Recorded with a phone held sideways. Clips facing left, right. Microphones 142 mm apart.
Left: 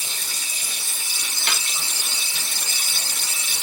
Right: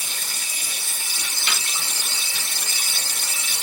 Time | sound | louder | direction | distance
0.0 | running water | right 1 dB | 60° right (ahead or behind) | 2 m
1.5 | a snare drum | left 1 dB | 50° left (ahead or behind) | 1.8 m